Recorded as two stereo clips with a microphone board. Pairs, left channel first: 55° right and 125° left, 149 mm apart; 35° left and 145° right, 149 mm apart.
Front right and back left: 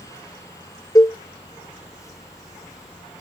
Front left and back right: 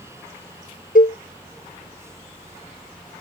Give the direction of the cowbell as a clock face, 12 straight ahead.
12 o'clock.